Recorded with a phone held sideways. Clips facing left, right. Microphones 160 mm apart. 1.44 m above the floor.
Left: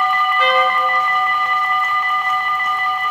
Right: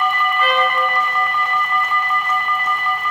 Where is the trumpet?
80° left, 2 m.